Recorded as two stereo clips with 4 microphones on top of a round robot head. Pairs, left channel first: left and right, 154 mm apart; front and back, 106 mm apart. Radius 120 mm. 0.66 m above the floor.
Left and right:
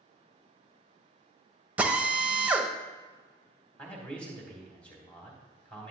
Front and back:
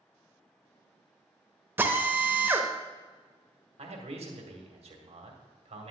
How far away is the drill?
About 1.0 m.